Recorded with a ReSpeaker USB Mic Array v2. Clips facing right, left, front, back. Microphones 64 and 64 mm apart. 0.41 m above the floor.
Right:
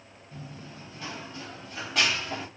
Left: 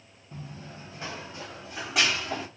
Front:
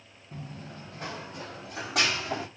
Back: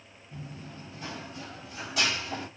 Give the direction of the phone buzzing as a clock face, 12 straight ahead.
I don't hear a phone buzzing.